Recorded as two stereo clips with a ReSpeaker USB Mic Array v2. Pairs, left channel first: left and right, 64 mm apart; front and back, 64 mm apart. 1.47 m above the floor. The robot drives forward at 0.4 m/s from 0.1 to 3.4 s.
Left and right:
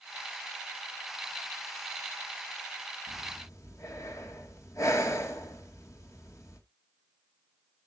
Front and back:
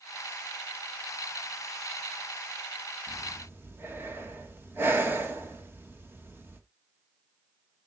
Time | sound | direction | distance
3.1 | breathing | 125° left | 1.9 m